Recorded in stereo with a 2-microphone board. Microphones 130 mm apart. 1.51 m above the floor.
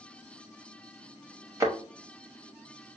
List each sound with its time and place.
1.6 s a thud: 25° right (ahead or behind), 0.9 m